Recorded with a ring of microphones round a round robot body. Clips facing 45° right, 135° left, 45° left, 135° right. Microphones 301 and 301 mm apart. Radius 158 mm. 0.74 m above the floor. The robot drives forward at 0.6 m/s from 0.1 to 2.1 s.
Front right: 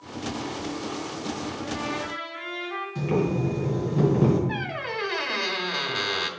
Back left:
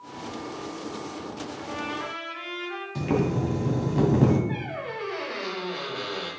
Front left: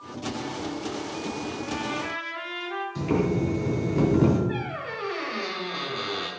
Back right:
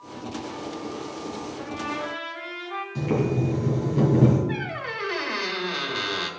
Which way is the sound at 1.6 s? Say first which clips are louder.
Front right 3 dB, front left 1 dB; 155° left.